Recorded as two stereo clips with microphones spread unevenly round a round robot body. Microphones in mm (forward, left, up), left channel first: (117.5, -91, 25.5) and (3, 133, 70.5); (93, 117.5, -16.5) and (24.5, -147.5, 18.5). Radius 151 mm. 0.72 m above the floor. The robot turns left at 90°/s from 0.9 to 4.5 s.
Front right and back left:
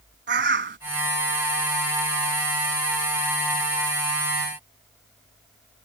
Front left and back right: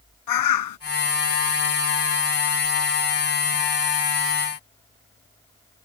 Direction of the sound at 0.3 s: 75° left.